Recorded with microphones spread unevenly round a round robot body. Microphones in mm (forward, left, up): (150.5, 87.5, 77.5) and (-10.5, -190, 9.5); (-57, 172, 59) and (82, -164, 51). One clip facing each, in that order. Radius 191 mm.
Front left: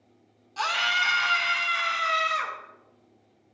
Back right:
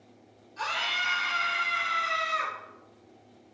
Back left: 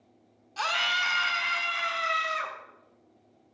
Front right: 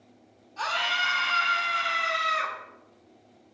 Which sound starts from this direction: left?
A scream, at 0.6 s.